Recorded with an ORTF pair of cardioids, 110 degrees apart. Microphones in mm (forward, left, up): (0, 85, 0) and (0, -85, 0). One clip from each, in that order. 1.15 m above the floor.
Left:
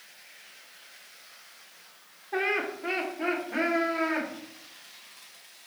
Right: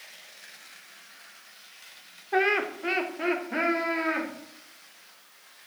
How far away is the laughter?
About 0.6 m.